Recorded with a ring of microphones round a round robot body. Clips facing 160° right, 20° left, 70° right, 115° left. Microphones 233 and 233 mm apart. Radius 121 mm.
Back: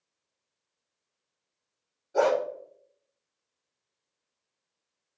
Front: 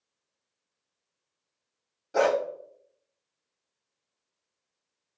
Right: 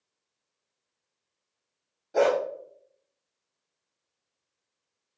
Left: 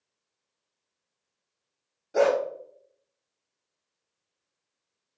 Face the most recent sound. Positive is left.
turn(degrees=30)